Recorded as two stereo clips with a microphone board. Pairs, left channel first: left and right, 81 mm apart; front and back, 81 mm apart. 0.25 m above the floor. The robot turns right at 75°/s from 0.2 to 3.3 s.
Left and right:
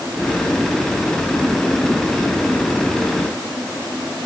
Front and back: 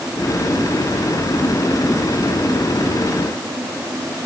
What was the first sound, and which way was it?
Only background noise.